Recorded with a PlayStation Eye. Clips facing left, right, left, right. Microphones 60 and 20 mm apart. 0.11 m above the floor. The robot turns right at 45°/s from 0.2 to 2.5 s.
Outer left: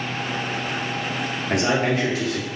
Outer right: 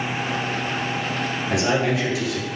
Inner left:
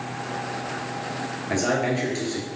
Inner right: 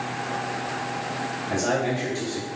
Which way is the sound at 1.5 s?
95° left.